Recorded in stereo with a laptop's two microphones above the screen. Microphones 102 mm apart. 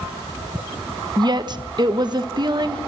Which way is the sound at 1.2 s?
45° right (ahead or behind).